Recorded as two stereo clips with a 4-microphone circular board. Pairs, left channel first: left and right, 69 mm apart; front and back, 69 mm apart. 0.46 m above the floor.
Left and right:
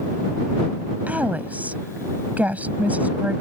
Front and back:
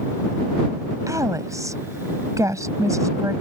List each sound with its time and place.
1.1 s a woman speaking: 155° right